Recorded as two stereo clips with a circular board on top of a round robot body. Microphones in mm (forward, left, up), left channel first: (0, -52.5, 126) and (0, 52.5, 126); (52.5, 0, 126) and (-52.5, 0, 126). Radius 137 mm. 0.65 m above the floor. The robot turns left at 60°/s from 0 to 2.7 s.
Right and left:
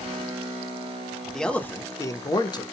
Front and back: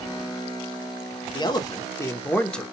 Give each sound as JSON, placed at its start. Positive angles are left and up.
{"t": 1.3, "sound": "a man speaking", "azimuth_deg": -5, "distance_m": 0.7}